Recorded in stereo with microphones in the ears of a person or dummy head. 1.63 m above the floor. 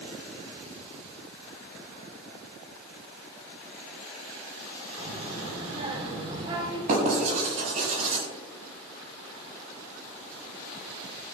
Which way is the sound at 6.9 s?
45° right (ahead or behind).